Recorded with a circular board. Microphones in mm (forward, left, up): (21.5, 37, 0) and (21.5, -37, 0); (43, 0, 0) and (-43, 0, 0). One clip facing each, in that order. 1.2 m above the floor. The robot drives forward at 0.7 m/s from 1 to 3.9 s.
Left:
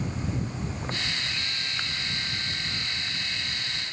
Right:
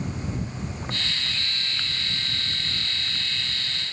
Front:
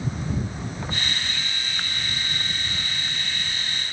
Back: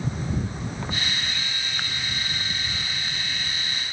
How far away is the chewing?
I don't hear chewing.